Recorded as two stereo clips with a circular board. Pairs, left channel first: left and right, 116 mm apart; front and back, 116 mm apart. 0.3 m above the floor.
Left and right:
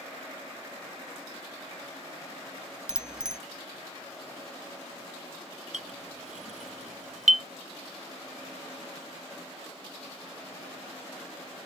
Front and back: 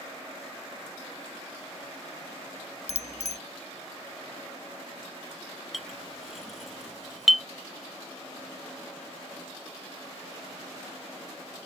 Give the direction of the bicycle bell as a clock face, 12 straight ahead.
12 o'clock.